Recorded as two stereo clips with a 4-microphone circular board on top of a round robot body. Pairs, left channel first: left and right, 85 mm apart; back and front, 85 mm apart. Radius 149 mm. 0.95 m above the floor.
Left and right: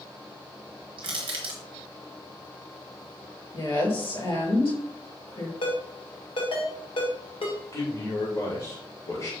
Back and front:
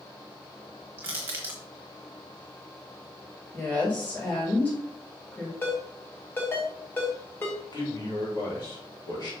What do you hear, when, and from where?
1.0 s crushing: 65° right, 0.8 m
3.5 s a woman speaking: 105° left, 4 m
5.6 s a ringtone: 110° left, 1.8 m
7.7 s a man speaking: 135° left, 3 m